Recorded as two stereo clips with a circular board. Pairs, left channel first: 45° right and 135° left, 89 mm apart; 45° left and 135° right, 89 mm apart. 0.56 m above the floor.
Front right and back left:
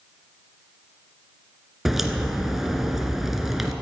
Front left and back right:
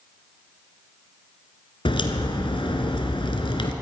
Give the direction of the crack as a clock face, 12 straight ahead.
10 o'clock.